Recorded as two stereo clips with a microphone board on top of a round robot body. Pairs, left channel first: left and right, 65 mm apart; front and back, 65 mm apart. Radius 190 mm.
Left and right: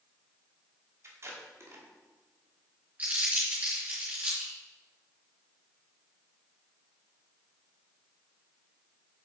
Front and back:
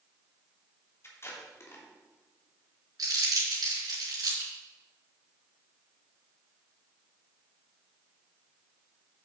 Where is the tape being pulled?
45° right, 2.5 m.